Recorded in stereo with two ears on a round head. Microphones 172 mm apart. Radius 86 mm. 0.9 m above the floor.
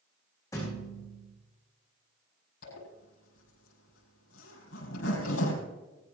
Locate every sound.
0.5 s a thud: 20° left (ahead or behind), 7 m
2.6 s a zipper: 80° left, 5.5 m